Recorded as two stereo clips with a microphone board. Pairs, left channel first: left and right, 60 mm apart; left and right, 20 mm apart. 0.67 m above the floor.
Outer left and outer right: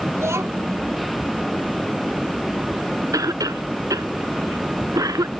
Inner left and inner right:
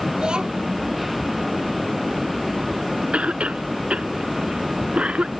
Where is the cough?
85° right.